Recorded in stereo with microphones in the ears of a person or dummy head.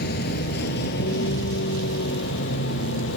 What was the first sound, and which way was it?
A vehicle, 55° left (ahead or behind).